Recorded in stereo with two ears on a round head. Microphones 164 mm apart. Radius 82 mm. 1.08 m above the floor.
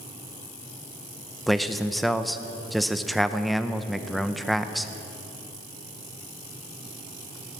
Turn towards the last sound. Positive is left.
turn(degrees=0)  # may be behind; listen again after turning